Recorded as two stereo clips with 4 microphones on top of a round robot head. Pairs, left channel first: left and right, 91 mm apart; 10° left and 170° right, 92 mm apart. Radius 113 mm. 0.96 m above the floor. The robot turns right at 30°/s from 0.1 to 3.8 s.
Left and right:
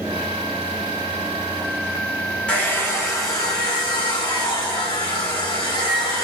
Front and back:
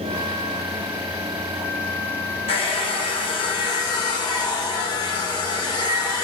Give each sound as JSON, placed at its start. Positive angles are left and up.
{"t": 2.5, "sound": "a hair dryer", "azimuth_deg": 10, "distance_m": 1.6}